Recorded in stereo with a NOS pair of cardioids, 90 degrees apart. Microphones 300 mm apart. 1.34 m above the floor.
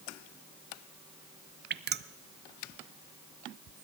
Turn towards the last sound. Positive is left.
turn(degrees=-35)